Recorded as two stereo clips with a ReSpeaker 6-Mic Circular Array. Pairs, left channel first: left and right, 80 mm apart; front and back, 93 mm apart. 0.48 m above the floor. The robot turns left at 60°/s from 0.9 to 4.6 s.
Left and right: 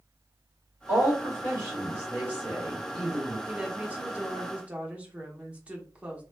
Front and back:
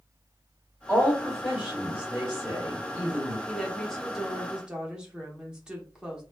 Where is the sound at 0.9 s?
60° right, 1.6 m; by 3.4 s 150° left, 1.6 m.